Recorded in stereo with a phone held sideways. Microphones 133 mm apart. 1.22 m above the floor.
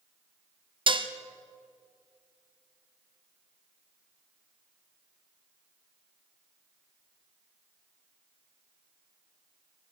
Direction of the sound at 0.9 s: 40° right (ahead or behind).